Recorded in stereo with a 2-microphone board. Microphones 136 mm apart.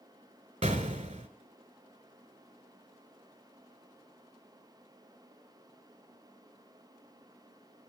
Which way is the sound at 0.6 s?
55° right (ahead or behind).